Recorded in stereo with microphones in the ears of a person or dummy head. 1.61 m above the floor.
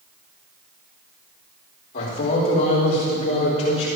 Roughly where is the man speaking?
Left.